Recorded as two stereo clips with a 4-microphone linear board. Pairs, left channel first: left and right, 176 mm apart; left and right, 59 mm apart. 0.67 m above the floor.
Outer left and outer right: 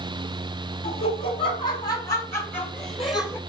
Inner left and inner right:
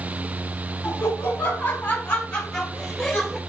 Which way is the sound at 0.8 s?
60° left (ahead or behind).